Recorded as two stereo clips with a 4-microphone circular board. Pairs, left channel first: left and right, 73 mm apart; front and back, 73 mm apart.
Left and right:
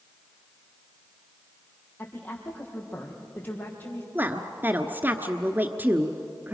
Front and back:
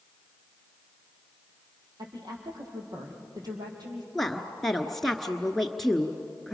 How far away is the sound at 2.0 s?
About 5 m.